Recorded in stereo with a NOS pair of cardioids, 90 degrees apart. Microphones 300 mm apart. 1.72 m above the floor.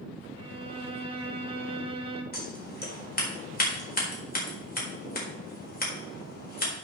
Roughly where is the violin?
Ahead.